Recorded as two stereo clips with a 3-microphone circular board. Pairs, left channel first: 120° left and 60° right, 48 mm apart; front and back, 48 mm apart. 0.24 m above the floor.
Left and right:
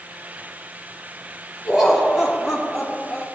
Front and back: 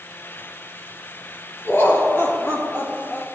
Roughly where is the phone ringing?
I don't hear a phone ringing.